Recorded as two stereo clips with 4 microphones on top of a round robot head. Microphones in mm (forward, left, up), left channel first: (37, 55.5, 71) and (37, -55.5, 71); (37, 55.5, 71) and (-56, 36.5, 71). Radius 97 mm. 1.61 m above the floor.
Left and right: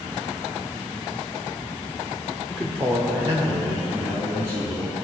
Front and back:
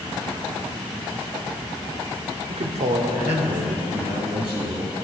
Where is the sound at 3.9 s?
160° right, 4 m.